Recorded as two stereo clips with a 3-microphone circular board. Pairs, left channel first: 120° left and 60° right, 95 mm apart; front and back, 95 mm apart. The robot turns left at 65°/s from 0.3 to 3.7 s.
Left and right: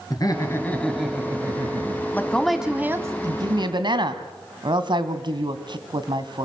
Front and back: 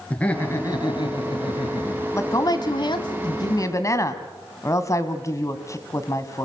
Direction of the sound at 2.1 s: 55° left.